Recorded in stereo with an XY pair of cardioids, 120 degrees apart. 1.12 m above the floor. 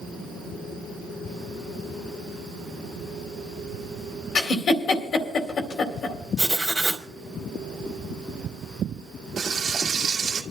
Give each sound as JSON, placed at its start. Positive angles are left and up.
{"t": 4.3, "sound": "a giggle", "azimuth_deg": 55, "distance_m": 2.0}
{"t": 6.4, "sound": "writing", "azimuth_deg": -5, "distance_m": 2.5}
{"t": 9.4, "sound": "frying", "azimuth_deg": -45, "distance_m": 1.9}